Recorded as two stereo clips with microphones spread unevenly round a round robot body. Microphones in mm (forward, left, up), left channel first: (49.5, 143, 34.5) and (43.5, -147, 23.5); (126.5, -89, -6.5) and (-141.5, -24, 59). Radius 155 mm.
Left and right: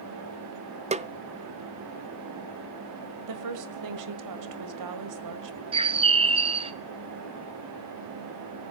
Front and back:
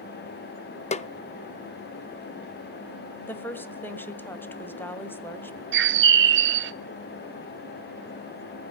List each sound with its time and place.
0.9 s a snare drum: 40° right, 0.7 m
3.3 s a woman speaking: 90° right, 1.8 m
5.7 s a bird: 150° right, 0.8 m